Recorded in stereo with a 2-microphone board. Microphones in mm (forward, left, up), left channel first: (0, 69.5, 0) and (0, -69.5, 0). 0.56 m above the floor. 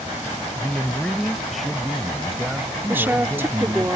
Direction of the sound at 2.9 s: 15° right (ahead or behind).